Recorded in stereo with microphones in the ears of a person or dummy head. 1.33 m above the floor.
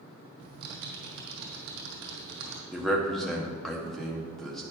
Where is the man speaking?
Centre (ahead or behind), 0.9 m.